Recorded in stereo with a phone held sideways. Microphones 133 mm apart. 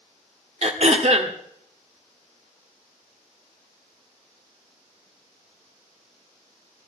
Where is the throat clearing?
50° right (ahead or behind), 1.6 m.